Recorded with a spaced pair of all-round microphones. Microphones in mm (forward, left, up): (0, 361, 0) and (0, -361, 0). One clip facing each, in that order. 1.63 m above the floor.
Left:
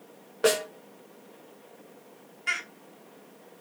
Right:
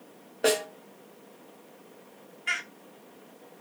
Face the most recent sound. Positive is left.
turn(degrees=65)  # may be behind; listen again after turning